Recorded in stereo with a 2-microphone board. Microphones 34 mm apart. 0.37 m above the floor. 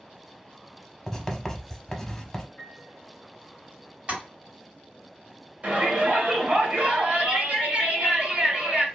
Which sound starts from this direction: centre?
Writing, at 1.1 s.